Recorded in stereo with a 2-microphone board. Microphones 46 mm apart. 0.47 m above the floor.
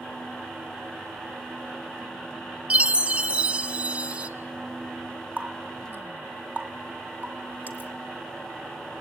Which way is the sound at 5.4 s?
35° right (ahead or behind).